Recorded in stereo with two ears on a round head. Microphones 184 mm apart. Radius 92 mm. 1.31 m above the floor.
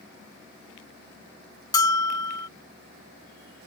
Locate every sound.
1.7 s a bell: 20° left (ahead or behind)